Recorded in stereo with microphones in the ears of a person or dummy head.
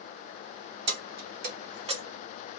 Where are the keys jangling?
65° right (ahead or behind), 1.0 m; by 2.0 s 25° right (ahead or behind), 0.5 m.